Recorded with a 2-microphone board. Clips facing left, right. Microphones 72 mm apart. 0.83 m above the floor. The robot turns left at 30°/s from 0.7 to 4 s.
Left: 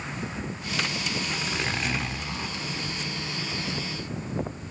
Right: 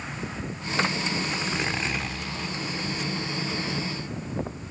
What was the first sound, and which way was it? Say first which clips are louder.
A zipper: right 1 dB; 160° right.